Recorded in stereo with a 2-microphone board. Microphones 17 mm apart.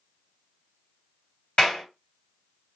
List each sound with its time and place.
1.6 s a clap: 40° left (ahead or behind), 1.9 m